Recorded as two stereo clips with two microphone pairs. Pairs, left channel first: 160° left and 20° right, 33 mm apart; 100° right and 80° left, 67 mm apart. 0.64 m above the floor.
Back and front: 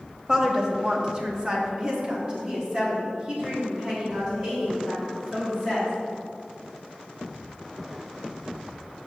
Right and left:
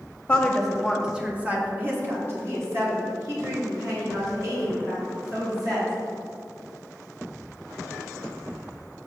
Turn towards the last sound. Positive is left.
turn(degrees=50)